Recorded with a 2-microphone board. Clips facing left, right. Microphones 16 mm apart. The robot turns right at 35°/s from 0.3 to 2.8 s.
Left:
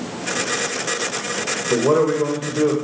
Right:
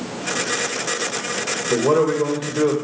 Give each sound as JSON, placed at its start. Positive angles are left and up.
{"t": 1.7, "sound": "a man speaking", "azimuth_deg": 165, "distance_m": 1.9}